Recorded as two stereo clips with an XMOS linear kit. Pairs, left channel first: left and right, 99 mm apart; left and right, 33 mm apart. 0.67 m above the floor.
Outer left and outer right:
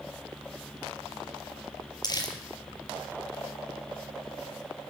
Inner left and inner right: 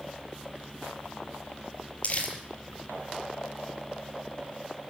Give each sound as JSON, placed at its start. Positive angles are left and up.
{"t": 2.0, "sound": "crumpling", "side_deg": 45, "distance_m": 4.5}